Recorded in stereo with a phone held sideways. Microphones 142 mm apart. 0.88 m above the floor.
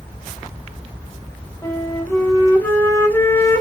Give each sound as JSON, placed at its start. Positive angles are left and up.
{"t": 1.6, "sound": "a flute", "side_deg": 15, "distance_m": 3.0}